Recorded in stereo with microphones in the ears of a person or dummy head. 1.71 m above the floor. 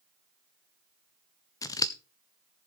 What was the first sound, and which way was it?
Scissors, 20° left (ahead or behind).